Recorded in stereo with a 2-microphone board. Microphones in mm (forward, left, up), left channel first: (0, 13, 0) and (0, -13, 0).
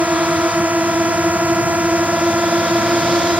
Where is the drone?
80° right; by 3.4 s 75° right (ahead or behind).